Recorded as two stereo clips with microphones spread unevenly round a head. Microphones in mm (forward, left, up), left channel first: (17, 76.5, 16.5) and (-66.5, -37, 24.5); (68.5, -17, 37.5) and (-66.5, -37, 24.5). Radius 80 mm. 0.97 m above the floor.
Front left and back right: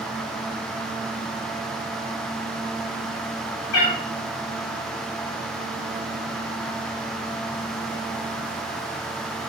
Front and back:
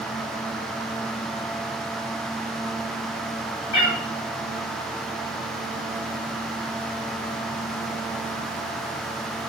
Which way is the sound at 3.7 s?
15° left.